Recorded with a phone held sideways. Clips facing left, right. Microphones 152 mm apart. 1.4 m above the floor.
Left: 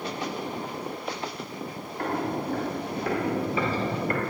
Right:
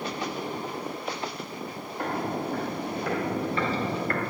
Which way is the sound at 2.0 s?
15° right (ahead or behind).